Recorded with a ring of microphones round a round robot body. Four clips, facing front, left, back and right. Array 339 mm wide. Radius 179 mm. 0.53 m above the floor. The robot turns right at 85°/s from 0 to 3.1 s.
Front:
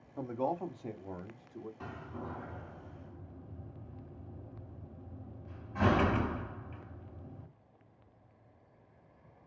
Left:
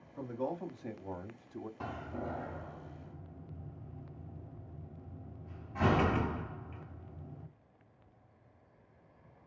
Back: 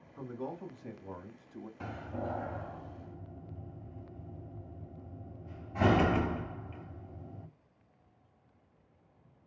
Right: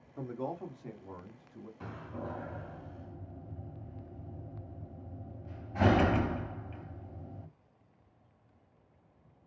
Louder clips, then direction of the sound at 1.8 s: Even, back 9 dB; 115° left.